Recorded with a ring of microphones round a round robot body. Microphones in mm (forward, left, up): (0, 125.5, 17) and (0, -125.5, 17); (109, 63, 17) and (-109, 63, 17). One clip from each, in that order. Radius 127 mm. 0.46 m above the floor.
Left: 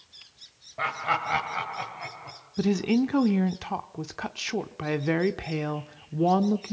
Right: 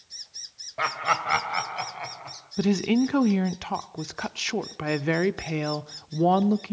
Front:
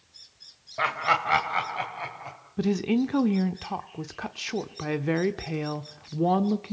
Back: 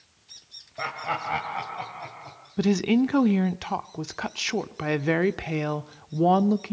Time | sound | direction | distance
0.8 | laughter | 35° right | 2 m
2.6 | a woman speaking | 140° right | 0.8 m